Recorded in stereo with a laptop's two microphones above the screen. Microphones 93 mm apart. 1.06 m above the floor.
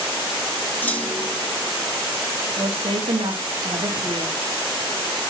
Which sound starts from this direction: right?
A woman speaking, at 2.6 s.